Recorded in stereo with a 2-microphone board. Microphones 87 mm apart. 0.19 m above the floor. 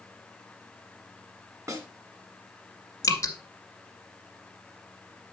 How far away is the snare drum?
About 1.6 m.